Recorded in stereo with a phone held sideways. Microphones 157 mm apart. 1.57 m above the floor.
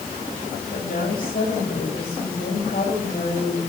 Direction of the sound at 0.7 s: 70° left (ahead or behind).